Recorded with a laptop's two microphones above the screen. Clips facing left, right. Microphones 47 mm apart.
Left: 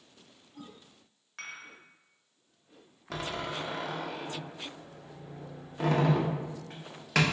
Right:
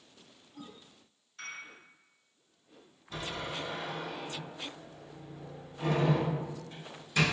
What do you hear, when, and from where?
1.4 s dishes clattering: 80° left, 1.2 m
3.1 s a door slam: 75° left (ahead or behind), 0.7 m